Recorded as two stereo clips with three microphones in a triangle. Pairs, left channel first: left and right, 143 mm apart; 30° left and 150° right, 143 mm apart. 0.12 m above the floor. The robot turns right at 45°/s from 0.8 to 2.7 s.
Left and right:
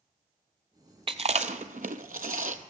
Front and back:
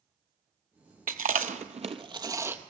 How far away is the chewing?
About 0.5 m.